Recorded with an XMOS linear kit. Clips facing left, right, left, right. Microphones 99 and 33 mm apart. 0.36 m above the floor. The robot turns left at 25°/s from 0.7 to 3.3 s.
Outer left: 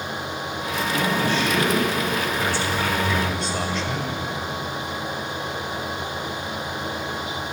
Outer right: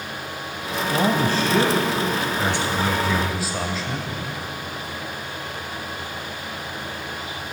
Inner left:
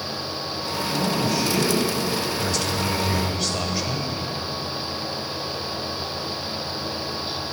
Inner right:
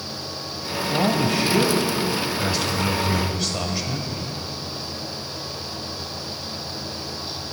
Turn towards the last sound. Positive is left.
turn(degrees=-175)